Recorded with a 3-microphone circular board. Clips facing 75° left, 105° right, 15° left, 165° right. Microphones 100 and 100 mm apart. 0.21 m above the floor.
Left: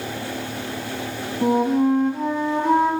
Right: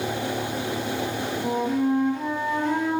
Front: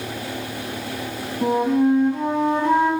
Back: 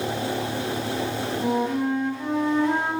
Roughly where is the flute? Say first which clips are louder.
Left 7 dB, front 7 dB; ahead left.